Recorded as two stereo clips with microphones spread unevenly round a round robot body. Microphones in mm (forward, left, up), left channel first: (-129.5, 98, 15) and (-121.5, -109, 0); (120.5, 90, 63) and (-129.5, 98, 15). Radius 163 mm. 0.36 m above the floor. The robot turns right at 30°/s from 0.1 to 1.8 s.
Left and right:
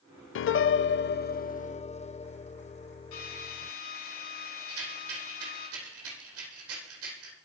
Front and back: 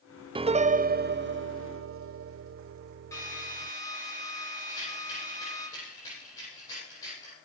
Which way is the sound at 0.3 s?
110° left.